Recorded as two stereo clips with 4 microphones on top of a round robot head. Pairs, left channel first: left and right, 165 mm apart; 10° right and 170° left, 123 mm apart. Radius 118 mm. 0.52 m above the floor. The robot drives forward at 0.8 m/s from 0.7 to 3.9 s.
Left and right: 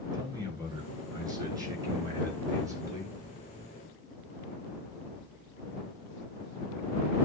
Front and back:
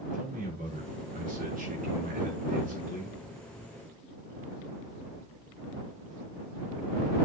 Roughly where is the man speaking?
Behind.